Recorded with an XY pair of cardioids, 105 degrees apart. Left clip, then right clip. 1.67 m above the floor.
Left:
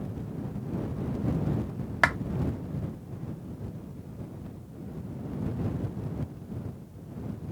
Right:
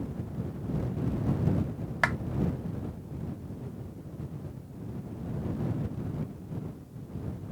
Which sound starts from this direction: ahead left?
A clap, at 2.0 s.